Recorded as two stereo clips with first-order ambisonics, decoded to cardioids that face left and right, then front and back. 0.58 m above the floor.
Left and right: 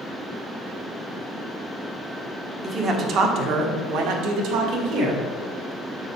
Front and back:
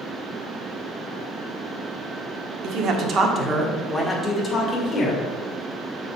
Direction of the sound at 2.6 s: 150° right.